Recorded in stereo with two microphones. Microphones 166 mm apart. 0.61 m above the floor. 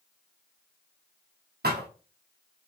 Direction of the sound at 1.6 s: 70° right (ahead or behind).